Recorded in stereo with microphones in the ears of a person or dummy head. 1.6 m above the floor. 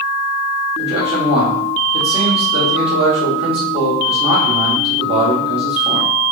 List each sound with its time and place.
0.8 s a man speaking: 35° right (ahead or behind), 1.4 m